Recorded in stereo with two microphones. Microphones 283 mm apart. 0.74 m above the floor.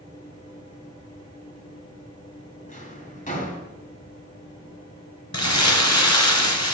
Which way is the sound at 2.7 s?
25° left (ahead or behind).